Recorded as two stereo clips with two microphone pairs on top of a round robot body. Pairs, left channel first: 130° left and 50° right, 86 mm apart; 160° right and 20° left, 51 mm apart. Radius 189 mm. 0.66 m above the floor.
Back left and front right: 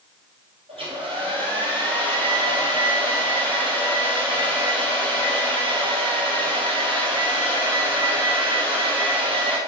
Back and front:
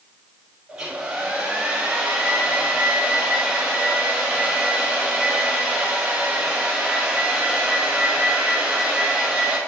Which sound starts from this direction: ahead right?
A hair dryer, at 0.7 s.